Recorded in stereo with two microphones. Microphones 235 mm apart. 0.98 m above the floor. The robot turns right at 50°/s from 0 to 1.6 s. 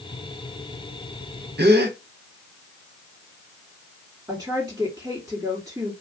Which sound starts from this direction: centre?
A woman speaking, at 4.3 s.